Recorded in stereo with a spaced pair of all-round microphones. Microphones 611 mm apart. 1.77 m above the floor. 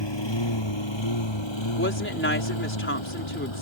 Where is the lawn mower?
45° left (ahead or behind); by 3.6 s 50° left (ahead or behind).